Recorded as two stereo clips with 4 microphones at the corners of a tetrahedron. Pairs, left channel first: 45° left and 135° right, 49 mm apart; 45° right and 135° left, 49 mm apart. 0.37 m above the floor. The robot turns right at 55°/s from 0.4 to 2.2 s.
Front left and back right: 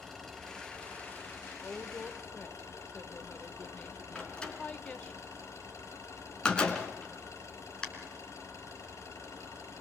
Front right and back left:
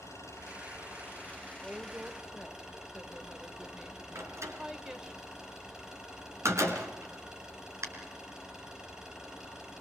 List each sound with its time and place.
0.0 s an engine running: 35° right, 7 m; by 9.8 s 65° left, 7 m
1.6 s a woman speaking: 45° left, 1.3 m; by 5.2 s 75° left, 1.3 m
4.2 s a door slam: 115° left, 3.5 m